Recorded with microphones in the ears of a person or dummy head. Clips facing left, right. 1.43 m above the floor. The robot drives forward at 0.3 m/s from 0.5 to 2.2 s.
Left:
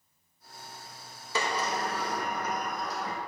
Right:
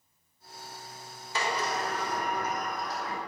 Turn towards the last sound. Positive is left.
turn(degrees=70)  # may be behind; listen again after turning